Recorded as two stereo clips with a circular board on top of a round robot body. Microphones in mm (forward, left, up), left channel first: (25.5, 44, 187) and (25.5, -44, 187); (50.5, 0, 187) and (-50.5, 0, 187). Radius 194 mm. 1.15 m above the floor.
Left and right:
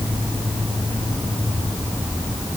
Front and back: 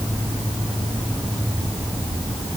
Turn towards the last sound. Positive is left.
No sound to turn to.